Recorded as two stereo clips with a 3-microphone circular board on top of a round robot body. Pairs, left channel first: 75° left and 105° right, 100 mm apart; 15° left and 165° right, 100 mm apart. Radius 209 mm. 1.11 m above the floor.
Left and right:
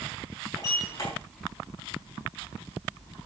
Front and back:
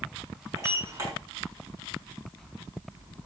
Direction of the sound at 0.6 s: 130° left.